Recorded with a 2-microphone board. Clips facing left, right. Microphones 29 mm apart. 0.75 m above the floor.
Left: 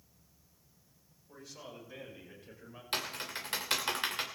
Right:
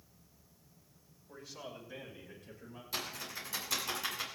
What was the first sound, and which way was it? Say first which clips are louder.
A man speaking: right 2 dB; 15° right (ahead or behind).